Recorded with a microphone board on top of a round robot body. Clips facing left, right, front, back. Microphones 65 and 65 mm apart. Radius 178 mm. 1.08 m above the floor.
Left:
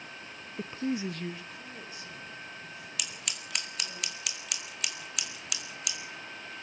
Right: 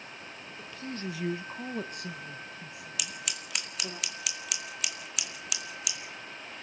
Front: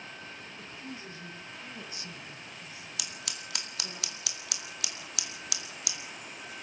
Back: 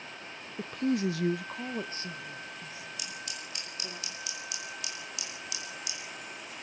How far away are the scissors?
About 2 m.